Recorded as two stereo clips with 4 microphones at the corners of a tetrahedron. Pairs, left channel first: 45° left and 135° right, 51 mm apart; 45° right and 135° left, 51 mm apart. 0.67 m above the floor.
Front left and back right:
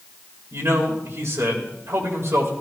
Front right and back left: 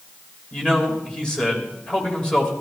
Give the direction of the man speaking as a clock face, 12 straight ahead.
4 o'clock.